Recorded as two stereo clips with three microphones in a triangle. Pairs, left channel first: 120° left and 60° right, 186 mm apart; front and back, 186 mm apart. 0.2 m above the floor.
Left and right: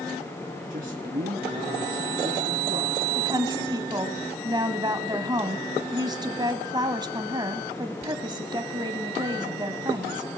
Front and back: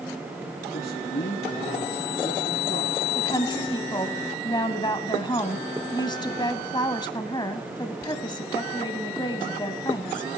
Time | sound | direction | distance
0.7 | a man speaking | 25° right | 3.5 m
3.1 | a woman speaking | 30° right | 1.1 m